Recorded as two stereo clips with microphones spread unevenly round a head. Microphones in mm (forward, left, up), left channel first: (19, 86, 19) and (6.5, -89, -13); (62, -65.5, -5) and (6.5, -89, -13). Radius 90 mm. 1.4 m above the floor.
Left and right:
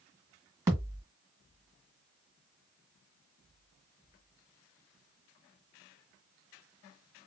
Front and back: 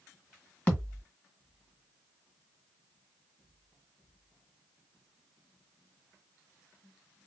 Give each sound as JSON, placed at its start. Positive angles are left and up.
{"t": 0.7, "sound": "a thud", "azimuth_deg": -15, "distance_m": 1.6}